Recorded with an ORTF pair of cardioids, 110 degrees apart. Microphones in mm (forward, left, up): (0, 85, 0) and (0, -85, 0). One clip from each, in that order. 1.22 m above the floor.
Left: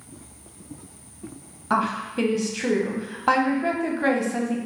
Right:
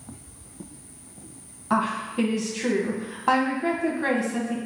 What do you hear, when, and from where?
1.7 s a woman speaking: 10° left, 0.8 m